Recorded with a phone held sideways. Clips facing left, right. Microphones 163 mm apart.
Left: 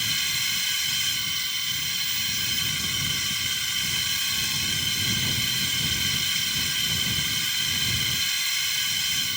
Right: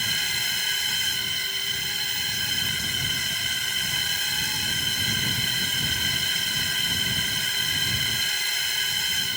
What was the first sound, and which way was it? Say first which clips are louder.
A drone: right 3 dB; 60° right (ahead or behind).